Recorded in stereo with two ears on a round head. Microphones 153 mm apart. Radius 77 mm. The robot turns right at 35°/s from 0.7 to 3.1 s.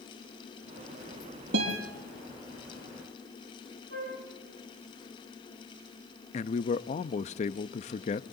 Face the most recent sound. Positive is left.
turn(degrees=40)  # may be behind; listen again after turning